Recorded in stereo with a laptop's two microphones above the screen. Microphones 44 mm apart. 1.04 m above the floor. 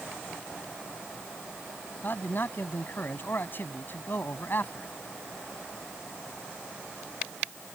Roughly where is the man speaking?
Left.